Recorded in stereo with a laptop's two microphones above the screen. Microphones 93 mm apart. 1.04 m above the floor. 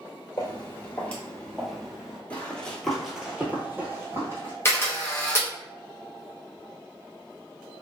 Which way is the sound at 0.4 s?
30° left (ahead or behind).